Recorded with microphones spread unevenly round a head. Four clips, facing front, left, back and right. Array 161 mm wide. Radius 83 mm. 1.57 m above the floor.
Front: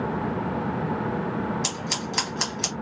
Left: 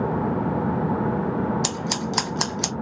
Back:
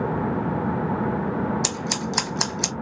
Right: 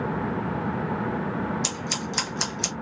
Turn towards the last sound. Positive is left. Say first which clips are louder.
# left 4 dB, back 3 dB
turn(degrees=120)